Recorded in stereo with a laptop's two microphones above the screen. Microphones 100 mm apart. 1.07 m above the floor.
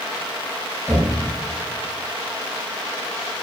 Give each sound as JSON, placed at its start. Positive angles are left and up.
{"t": 0.9, "sound": "knocking", "side_deg": -30, "distance_m": 5.0}